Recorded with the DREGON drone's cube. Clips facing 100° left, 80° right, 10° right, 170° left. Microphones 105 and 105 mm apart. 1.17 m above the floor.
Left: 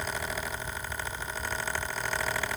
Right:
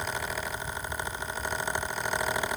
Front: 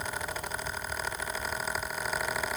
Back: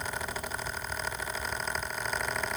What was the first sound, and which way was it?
Only background noise.